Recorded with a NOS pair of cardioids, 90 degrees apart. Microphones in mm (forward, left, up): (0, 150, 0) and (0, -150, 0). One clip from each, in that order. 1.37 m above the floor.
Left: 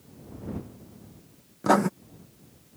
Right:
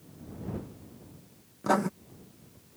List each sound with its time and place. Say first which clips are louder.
1.6 s writing: left 5 dB; 30° left